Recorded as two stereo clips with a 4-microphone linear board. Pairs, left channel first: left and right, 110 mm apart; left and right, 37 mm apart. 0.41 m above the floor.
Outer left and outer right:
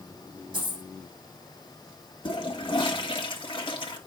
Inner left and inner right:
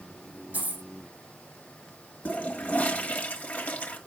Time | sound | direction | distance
0.5 | a dropped coin | 50° right (ahead or behind) | 5.5 m
2.2 | a toilet flushing | 45° left (ahead or behind) | 1.1 m